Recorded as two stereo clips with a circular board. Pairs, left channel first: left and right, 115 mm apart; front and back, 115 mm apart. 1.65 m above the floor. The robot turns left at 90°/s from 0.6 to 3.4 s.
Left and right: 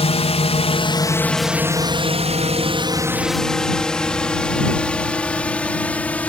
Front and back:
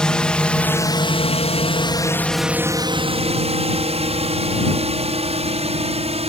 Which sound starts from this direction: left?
A drone, at 0.0 s.